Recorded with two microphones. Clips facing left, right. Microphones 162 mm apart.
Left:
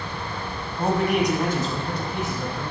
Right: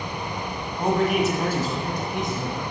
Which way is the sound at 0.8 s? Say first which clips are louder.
Even; 5° left (ahead or behind).